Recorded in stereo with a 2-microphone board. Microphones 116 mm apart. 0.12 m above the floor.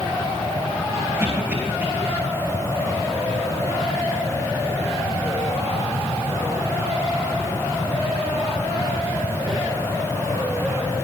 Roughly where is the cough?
Right.